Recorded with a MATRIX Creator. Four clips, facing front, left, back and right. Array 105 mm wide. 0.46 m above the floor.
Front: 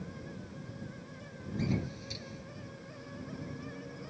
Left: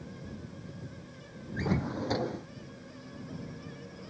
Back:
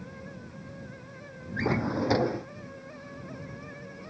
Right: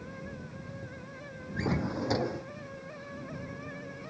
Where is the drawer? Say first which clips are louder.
Even, back 8 dB; 175° right.